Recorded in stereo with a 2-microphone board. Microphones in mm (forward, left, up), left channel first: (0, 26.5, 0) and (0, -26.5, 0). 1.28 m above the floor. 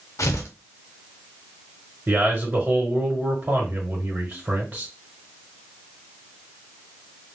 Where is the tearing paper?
60° left (ahead or behind), 0.7 m.